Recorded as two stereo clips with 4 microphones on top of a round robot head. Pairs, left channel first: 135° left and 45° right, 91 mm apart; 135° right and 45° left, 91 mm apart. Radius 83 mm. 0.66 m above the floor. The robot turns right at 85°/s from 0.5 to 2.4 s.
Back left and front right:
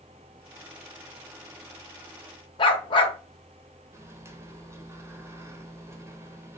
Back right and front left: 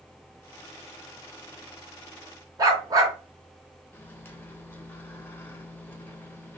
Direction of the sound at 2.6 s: 100° left.